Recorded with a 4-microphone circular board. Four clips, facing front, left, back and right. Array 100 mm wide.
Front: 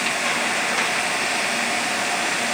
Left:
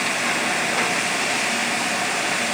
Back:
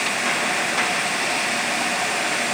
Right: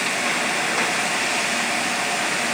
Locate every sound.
Only background noise.